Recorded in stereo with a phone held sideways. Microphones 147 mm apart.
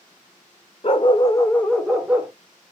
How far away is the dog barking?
About 1.0 m.